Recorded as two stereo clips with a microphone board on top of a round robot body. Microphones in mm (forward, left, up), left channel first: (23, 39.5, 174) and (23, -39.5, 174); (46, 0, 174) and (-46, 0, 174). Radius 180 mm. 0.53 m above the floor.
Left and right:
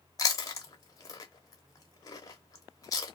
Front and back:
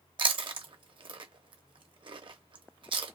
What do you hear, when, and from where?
0.2 s chewing: 140° left, 0.8 m